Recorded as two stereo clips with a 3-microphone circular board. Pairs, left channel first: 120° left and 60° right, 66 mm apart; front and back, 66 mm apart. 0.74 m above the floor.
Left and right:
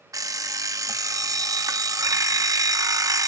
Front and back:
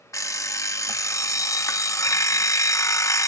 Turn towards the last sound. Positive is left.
turn(degrees=-35)